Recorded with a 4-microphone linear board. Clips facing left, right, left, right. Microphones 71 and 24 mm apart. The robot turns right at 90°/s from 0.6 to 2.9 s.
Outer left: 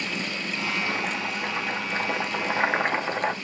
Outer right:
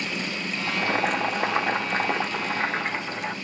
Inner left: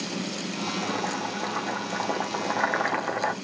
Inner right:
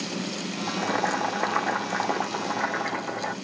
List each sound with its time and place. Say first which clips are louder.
0.7 s boiling: outer right 5 dB, inner right 4 dB; 145° right, 0.8 m; by 3.4 s 55° left, 0.8 m